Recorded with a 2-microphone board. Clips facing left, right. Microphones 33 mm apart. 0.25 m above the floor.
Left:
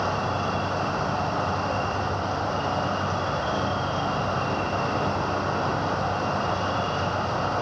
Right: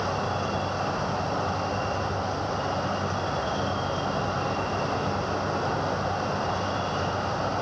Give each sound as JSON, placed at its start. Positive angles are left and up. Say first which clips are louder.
{"t": 0.0, "sound": "an insect", "louder": "left 2 dB", "side_deg": 25, "distance_m": 2.5}